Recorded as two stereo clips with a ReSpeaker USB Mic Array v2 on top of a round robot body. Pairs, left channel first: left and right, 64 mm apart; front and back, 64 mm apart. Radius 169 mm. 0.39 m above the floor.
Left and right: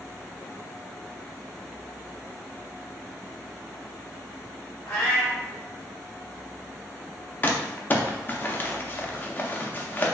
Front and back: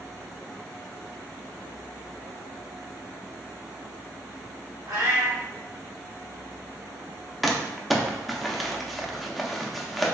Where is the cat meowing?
145° left, 1.2 m.